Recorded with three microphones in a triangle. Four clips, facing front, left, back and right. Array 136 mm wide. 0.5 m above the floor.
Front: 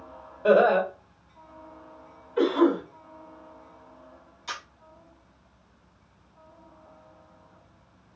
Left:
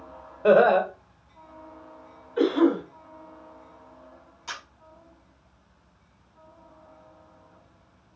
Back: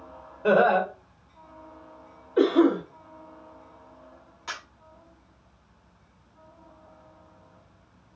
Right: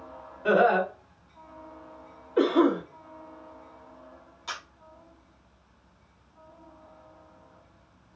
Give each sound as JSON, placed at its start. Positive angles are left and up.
{"t": 0.4, "sound": "laughter", "azimuth_deg": 95, "distance_m": 1.9}
{"t": 2.4, "sound": "a cough", "azimuth_deg": -130, "distance_m": 1.7}
{"t": 4.5, "sound": "a camera shutter", "azimuth_deg": -165, "distance_m": 1.5}